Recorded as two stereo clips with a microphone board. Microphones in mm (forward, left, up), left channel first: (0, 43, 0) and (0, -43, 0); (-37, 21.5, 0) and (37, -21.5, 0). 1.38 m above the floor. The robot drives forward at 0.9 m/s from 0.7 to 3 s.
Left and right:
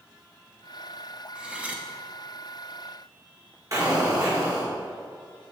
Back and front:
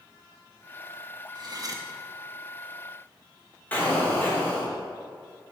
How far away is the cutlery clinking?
About 1.1 m.